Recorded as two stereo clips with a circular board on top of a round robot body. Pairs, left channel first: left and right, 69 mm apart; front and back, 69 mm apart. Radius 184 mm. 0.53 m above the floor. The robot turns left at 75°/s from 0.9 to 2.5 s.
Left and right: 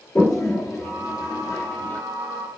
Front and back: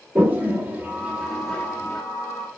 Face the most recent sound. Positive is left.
turn(degrees=5)